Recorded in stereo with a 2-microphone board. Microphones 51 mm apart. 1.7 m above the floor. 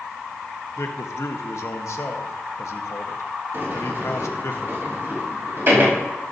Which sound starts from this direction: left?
A man speaking, at 0.8 s.